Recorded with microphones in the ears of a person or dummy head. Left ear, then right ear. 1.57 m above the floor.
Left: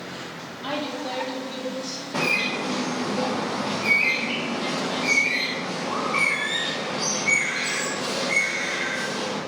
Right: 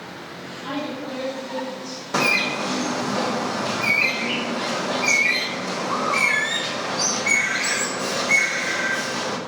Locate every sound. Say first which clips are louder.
0.6 s a woman speaking: left 1 dB; 30° left (ahead or behind), 3 m
2.1 s a bird: right 4 dB; 50° right (ahead or behind), 1.2 m